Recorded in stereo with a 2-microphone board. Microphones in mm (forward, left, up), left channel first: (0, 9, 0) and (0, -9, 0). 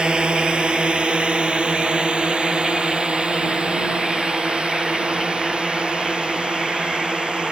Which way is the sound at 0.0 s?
65° right (ahead or behind).